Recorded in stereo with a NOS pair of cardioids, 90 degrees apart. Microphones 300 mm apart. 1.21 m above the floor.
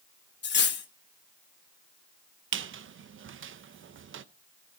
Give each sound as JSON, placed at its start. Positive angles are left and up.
{"t": 0.4, "sound": "cutlery clinking", "azimuth_deg": 35, "distance_m": 1.0}
{"t": 2.5, "sound": "a squeak", "azimuth_deg": -45, "distance_m": 0.7}